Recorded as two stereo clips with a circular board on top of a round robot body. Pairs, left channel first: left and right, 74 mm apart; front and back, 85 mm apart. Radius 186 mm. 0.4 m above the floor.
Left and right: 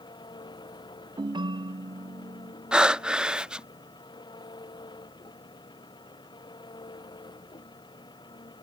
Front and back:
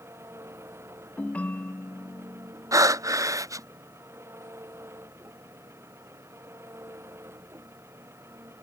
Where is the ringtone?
75° right.